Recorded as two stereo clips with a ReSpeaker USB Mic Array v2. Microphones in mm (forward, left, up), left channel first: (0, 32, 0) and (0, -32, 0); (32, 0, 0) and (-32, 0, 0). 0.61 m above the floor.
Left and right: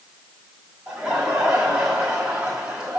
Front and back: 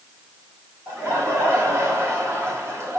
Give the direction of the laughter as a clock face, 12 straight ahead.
5 o'clock.